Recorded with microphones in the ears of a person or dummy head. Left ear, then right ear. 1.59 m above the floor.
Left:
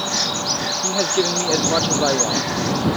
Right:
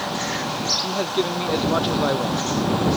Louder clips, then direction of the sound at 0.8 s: Left 4 dB; 10° left (ahead or behind).